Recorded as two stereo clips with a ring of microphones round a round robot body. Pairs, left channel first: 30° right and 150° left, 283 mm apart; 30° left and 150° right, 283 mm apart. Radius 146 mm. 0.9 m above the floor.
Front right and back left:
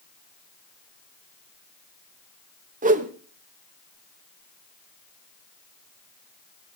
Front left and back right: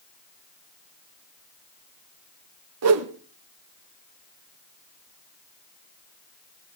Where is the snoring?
I don't hear snoring.